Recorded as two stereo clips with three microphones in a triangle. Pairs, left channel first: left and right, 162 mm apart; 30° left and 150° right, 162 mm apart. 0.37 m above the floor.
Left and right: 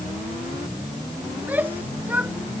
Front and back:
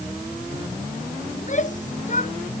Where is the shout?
10° right.